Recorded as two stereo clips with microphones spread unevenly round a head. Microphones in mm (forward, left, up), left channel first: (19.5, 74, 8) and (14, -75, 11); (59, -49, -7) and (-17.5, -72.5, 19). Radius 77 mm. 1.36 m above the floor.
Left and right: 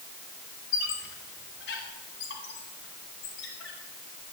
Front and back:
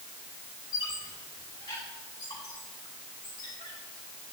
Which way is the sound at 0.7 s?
90° left.